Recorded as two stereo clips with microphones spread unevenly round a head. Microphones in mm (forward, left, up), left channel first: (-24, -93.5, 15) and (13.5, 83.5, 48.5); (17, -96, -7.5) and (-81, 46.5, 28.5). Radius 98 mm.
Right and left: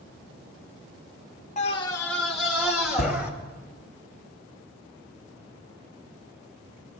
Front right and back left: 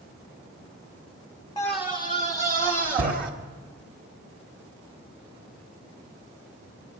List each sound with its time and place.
1.6 s a scream: 105° right, 0.5 m; by 3.3 s 160° left, 1.8 m